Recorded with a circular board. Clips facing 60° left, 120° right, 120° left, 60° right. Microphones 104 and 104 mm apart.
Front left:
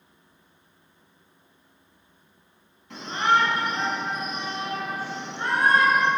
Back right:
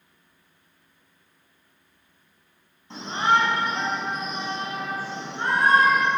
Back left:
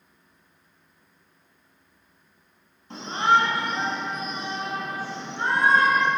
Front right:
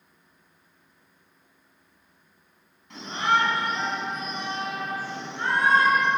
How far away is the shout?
About 4.5 m.